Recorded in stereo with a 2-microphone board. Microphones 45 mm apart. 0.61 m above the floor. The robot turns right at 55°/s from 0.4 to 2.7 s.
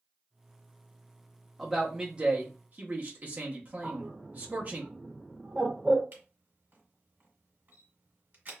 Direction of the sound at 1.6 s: Straight behind.